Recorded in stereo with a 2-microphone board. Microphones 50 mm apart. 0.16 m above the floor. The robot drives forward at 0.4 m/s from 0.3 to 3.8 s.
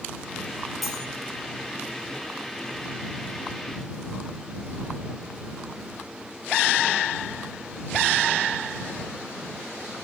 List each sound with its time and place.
0.8 s cutlery clinking: centre (ahead or behind), 2.5 m